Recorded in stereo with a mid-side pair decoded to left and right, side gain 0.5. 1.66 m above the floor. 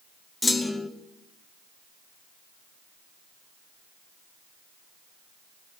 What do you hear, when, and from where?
0.4 s a clunk: 20° left, 2 m